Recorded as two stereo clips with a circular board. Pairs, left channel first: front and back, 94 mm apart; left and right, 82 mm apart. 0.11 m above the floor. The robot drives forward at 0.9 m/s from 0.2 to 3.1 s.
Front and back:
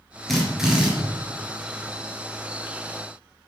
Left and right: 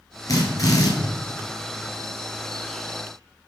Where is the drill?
85° left, 2 m; by 0.9 s 105° left, 2 m.